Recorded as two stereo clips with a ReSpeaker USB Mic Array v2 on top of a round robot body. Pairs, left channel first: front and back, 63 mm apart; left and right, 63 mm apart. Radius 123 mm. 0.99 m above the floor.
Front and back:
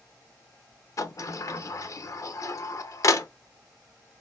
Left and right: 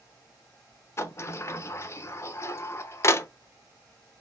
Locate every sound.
1.0 s a sliding door: 40° left, 0.7 m